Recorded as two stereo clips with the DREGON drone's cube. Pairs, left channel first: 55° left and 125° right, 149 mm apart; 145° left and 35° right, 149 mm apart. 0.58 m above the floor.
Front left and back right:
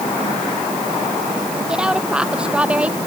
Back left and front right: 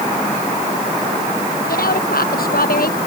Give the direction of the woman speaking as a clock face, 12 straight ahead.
7 o'clock.